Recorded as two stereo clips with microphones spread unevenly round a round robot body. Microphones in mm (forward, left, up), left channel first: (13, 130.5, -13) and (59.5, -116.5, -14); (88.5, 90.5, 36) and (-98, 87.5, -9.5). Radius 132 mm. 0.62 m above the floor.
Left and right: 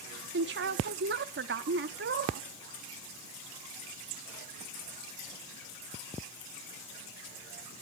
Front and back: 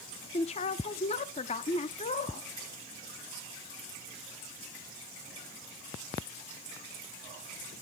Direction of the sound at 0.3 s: 60° right.